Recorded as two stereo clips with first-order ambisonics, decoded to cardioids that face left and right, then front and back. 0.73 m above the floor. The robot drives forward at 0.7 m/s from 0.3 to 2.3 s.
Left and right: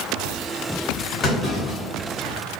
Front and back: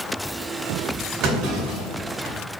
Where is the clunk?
145° left, 1.8 m; by 2.3 s 155° left, 2.5 m.